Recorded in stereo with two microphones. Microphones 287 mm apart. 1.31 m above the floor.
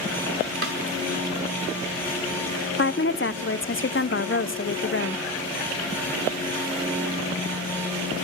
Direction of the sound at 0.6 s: 50° right (ahead or behind).